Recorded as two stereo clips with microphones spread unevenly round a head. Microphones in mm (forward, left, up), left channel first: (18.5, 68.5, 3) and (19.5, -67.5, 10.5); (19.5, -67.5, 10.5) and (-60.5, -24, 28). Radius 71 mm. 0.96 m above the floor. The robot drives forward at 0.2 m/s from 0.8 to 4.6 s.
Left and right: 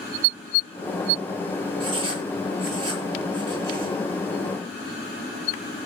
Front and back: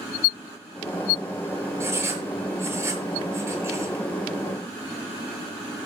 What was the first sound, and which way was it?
Writing, 150° right.